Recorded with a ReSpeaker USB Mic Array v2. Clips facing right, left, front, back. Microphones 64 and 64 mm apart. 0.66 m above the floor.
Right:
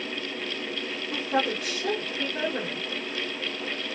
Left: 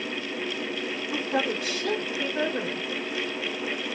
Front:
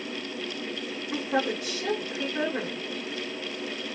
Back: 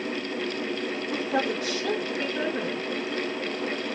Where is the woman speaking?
45° right, 1.8 m.